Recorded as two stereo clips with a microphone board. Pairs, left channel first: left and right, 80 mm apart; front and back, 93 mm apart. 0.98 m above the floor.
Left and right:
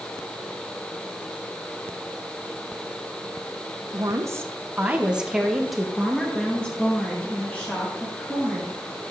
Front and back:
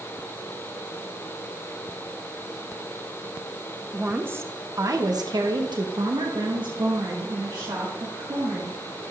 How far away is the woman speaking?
About 1.0 m.